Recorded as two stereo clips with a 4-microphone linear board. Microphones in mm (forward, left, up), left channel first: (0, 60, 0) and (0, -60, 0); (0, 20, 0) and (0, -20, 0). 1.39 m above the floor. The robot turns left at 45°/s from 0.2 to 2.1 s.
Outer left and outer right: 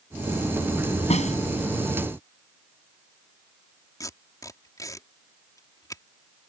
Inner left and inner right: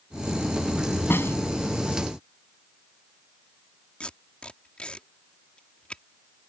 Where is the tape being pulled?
30° left (ahead or behind).